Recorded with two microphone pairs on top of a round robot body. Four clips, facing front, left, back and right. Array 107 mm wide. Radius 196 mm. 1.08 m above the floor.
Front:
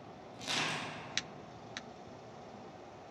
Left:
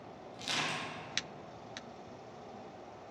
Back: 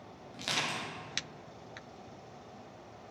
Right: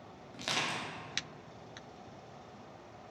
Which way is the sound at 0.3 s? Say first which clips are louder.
Right 1 dB, back 2 dB; 110° right.